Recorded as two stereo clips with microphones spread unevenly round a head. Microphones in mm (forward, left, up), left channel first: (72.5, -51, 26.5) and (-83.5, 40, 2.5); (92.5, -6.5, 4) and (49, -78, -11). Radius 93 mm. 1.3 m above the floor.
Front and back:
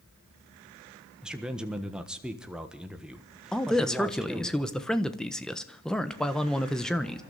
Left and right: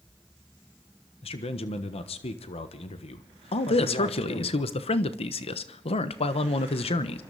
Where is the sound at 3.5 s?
60° left, 1.1 m.